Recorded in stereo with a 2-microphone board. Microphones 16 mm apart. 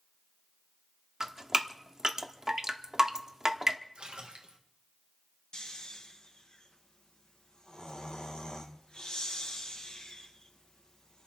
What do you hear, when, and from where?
1.2 s dripping: 30° right (ahead or behind), 1.2 m
4.0 s a splash: 75° right (ahead or behind), 2 m
5.5 s snoring: 60° left (ahead or behind), 1.5 m